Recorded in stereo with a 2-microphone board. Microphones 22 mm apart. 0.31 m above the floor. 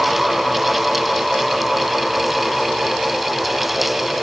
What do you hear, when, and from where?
Only background noise.